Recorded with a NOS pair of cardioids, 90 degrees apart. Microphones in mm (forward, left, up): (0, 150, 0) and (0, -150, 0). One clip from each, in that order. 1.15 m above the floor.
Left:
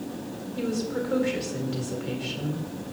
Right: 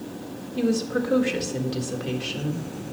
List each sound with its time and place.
0.6 s a woman speaking: 40° right, 1.7 m